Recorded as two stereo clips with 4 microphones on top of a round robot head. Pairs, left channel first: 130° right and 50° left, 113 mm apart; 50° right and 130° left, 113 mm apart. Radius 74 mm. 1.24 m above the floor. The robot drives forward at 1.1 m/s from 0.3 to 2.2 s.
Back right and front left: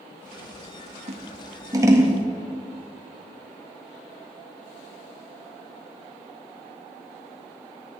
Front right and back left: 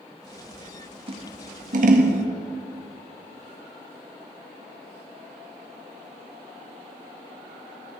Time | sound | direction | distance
1.1 | scissors | 85° left | 1.5 m